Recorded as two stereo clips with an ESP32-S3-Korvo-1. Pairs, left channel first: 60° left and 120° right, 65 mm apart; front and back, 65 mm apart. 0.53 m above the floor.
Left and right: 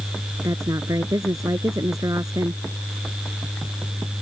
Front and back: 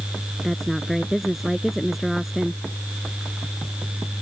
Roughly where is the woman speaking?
Right.